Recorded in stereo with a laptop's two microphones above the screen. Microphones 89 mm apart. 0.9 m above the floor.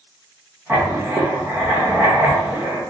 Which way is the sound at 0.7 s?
25° right (ahead or behind).